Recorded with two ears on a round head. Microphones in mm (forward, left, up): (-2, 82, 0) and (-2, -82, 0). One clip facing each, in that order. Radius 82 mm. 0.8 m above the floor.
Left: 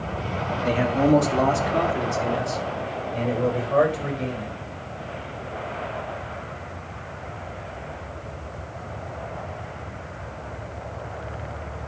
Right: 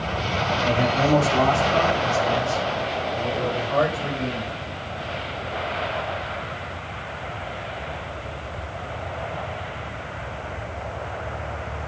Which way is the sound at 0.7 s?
20° left (ahead or behind).